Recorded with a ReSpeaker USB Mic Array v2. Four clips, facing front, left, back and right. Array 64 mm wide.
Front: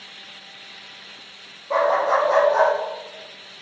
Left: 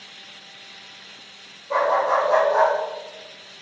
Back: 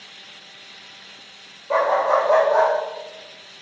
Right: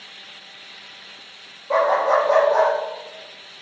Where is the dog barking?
140° right, 3.5 m; by 2.7 s 150° right, 4 m.